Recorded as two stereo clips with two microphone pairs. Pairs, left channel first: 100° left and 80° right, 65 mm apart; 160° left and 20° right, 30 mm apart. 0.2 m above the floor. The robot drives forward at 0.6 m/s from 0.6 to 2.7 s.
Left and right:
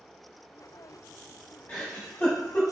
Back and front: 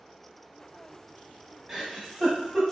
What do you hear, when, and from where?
1.7 s a giggle: 55° left, 1.2 m; by 2.7 s 115° left, 1.1 m